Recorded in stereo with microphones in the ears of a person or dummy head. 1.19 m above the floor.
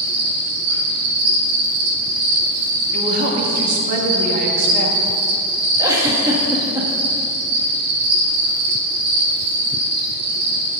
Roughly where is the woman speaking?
Right.